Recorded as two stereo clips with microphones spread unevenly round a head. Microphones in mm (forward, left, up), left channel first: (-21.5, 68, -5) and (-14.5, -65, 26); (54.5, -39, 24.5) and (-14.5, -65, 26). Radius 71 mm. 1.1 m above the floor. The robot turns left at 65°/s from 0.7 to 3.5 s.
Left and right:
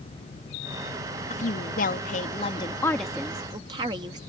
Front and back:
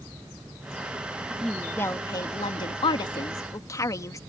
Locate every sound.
1.3 s a woman speaking: 120° left; by 4.2 s 20° right